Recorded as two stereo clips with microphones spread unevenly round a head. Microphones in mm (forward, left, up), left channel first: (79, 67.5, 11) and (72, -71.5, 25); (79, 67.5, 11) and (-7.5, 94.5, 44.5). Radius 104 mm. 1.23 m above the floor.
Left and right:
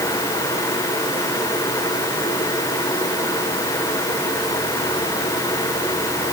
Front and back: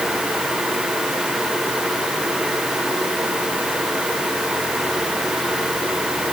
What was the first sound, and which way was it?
Only background noise.